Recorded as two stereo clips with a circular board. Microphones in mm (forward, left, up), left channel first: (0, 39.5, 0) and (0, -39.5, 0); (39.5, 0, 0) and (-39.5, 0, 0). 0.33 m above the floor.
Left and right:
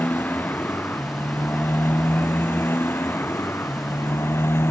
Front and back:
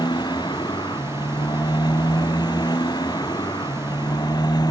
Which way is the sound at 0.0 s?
25° left.